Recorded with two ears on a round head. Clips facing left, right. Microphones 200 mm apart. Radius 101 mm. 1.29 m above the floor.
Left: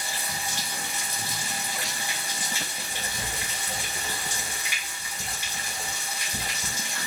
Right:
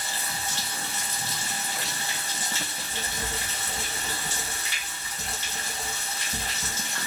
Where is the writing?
30° right (ahead or behind), 2 m.